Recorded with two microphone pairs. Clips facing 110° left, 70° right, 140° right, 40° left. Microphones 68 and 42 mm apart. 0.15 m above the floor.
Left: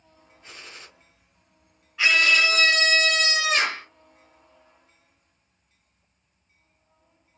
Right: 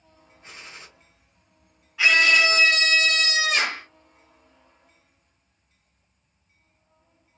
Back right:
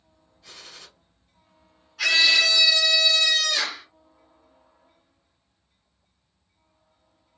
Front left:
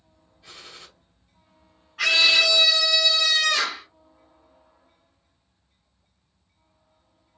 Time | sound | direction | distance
0.4 | a gunshot | 20° right | 2 m
2.0 | a scream | 15° left | 1.7 m